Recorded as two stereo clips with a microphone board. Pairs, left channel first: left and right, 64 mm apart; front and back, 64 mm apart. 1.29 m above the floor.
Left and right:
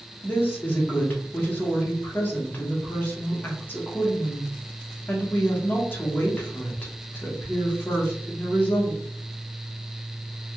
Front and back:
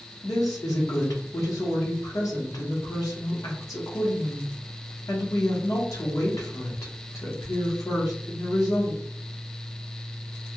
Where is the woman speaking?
30° left, 1.1 m.